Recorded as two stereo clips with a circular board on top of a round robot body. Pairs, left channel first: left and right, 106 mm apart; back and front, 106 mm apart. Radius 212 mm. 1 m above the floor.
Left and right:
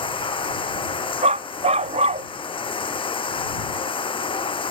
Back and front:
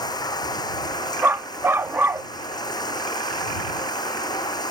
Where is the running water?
125° left.